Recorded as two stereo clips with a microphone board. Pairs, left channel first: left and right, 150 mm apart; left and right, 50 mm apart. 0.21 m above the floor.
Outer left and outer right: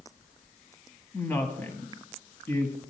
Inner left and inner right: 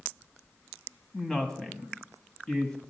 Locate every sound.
1.1 s a woman speaking: 15° left (ahead or behind), 1.1 m